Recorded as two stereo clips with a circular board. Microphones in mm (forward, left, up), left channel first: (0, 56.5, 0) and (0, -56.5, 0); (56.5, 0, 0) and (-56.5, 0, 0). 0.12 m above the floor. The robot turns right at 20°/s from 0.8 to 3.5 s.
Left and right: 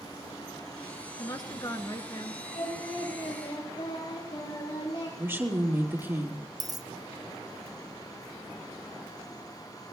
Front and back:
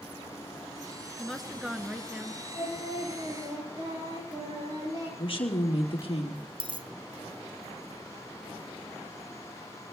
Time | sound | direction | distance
1.2 | a woman speaking | 85° left | 1.4 m
2.5 | singing | 110° left | 9.5 m
5.2 | a woman speaking | 25° right | 2.5 m
6.6 | a dropped coin | 145° right | 1.0 m